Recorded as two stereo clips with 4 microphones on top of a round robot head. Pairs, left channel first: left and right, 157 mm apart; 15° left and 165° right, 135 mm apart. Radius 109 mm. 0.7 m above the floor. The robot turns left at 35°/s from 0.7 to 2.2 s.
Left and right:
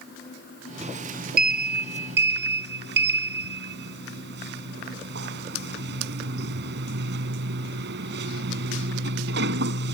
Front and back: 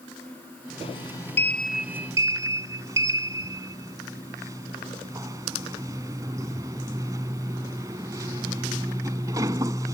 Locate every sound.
0.8 s a sliding door: 45° right; by 9.9 s 95° right